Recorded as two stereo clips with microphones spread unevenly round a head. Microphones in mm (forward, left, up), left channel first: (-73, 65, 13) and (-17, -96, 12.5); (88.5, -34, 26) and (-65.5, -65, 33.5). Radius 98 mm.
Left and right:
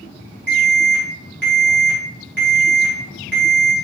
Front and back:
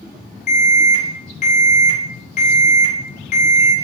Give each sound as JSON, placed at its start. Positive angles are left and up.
{"t": 0.5, "sound": "an alarm", "azimuth_deg": -25, "distance_m": 3.5}